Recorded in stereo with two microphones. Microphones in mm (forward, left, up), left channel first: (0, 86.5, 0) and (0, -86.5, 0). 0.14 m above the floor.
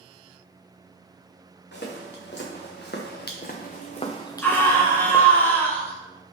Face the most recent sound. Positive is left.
turn(degrees=10)  # may be behind; listen again after turning